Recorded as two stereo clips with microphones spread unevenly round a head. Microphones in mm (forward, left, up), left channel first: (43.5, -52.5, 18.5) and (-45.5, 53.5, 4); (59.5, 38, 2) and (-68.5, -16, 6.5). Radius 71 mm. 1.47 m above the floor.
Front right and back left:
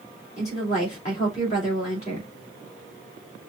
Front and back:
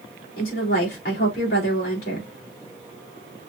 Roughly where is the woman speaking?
Ahead.